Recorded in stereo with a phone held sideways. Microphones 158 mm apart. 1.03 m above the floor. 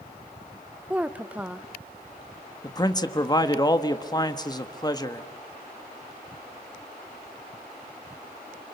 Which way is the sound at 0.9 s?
10° right (ahead or behind).